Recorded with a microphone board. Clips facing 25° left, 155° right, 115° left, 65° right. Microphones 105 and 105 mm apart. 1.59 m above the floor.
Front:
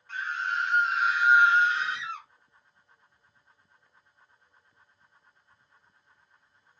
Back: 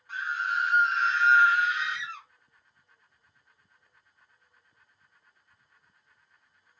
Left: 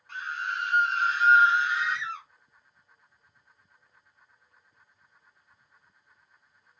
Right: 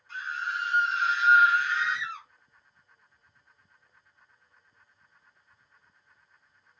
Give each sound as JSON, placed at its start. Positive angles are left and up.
{"t": 0.1, "sound": "a scream", "azimuth_deg": 125, "distance_m": 1.3}